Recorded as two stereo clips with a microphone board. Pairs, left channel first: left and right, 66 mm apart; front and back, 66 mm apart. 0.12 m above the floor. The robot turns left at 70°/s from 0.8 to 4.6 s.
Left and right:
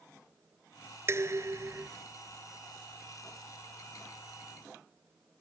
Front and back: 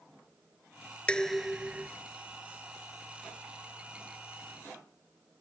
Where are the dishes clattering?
70° right; by 1.9 s 125° right.